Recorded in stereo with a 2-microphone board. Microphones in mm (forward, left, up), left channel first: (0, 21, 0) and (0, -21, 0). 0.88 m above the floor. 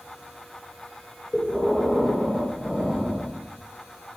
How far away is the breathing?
About 1.0 m.